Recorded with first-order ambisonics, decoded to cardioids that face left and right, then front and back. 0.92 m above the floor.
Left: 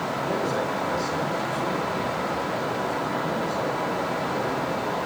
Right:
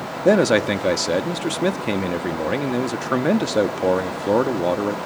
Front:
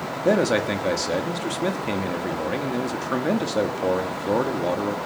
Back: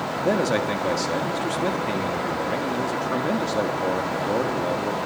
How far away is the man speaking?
About 1.7 m.